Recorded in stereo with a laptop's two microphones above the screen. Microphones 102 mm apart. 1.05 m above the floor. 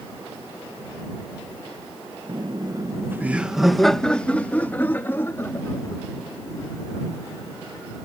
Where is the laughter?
50° right (ahead or behind); by 7.9 s 30° left (ahead or behind).